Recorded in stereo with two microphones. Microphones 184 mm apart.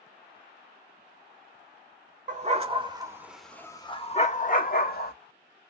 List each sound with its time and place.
2.3 s a dog barking: 40° right (ahead or behind), 1.2 m; by 5.1 s 60° left (ahead or behind), 1.5 m